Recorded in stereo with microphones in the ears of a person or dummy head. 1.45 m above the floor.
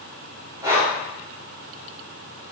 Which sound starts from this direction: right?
Breathing, at 0.6 s.